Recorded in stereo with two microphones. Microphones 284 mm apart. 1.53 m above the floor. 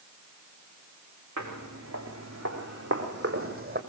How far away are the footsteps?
About 5.5 m.